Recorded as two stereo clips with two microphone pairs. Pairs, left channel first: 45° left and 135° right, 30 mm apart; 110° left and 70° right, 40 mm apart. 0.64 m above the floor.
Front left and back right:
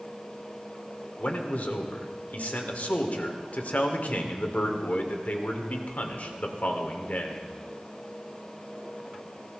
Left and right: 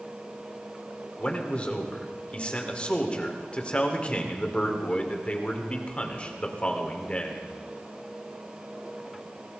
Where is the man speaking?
50° left, 1.9 m.